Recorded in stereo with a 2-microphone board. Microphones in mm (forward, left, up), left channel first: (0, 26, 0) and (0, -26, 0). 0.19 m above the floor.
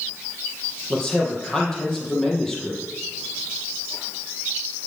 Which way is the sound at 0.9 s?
5° left (ahead or behind).